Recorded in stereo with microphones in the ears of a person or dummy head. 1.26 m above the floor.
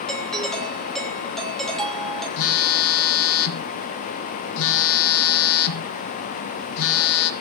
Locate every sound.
0.1 s a doorbell: 5° left (ahead or behind), 3 m
2.4 s a phone buzzing: 70° left (ahead or behind), 1.6 m